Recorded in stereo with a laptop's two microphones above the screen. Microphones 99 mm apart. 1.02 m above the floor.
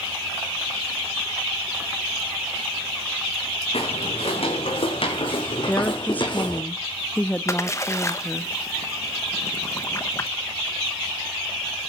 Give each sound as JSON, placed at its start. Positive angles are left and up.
{"t": 3.7, "sound": "footsteps", "side_deg": 60, "distance_m": 4.5}
{"t": 5.7, "sound": "a woman speaking", "side_deg": 15, "distance_m": 1.0}
{"t": 7.5, "sound": "a splash", "side_deg": 30, "distance_m": 0.9}